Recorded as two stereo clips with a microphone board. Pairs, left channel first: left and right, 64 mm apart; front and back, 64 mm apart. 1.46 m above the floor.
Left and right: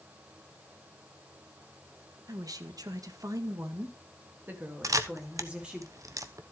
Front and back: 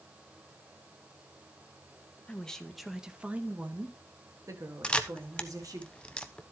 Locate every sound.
2.3 s a woman speaking: 75° right, 1.5 m; by 5.8 s 165° right, 3 m
4.8 s a camera shutter: 75° right, 0.9 m